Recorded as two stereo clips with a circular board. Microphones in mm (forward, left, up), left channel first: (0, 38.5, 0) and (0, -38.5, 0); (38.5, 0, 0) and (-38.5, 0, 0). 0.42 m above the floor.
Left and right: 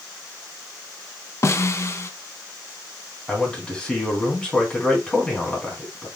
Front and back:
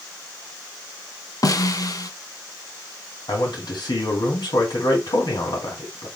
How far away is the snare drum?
About 0.8 m.